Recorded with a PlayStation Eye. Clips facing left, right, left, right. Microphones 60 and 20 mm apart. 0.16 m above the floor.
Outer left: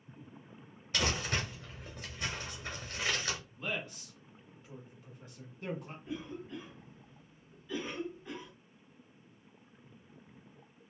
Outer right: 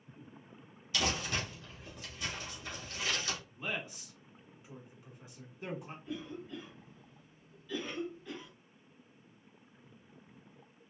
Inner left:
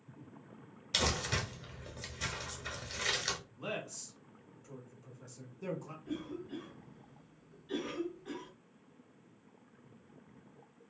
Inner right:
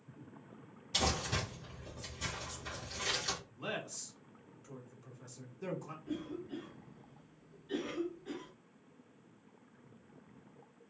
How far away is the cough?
About 1.2 m.